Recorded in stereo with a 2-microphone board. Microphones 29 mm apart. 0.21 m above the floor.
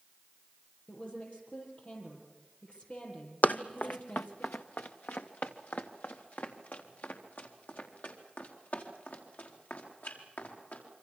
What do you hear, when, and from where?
0.9 s a woman speaking: 45° left (ahead or behind), 7 m
3.4 s running footsteps: 70° left (ahead or behind), 0.8 m; by 10.8 s 75° left (ahead or behind), 7 m